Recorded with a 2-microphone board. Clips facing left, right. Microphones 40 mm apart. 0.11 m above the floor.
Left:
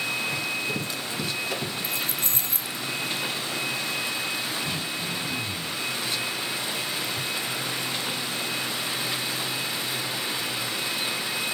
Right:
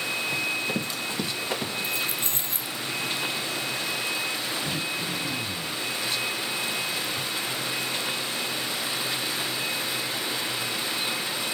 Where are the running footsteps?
30° right (ahead or behind), 4.5 m; by 1.7 s 40° right (ahead or behind), 5 m.